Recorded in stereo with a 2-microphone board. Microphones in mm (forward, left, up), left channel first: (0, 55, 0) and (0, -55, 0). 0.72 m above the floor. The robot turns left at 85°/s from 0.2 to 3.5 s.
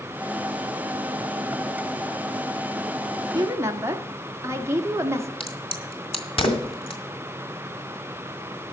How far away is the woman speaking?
About 1.5 m.